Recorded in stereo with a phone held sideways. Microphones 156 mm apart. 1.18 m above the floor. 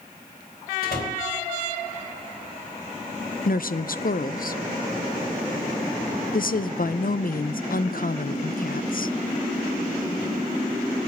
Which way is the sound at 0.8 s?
85° left.